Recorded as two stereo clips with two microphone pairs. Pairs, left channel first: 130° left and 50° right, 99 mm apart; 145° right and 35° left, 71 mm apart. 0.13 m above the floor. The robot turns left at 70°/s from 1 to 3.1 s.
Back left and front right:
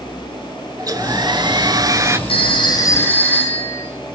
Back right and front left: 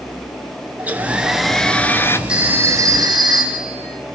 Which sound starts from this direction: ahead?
A hair dryer, at 0.8 s.